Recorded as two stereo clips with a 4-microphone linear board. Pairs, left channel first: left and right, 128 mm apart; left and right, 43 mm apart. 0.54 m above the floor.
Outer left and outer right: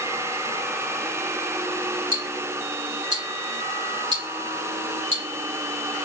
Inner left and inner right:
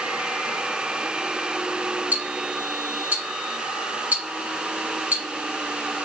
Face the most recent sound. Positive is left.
turn(degrees=-40)  # may be behind; listen again after turning